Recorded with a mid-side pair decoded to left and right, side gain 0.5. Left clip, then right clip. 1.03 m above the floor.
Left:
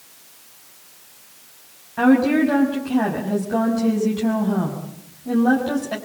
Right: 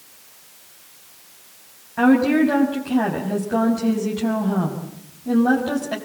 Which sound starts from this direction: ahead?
A woman speaking, at 2.0 s.